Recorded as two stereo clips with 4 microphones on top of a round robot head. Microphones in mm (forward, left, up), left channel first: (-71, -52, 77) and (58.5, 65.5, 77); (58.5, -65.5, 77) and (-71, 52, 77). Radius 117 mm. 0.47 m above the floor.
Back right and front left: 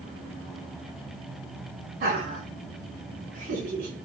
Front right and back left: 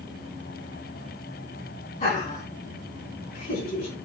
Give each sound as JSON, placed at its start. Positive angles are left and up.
{"t": 2.0, "sound": "laughter", "azimuth_deg": 5, "distance_m": 3.5}